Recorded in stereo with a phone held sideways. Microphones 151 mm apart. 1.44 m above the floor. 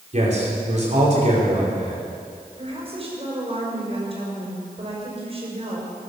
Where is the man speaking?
50° right (ahead or behind), 5 m.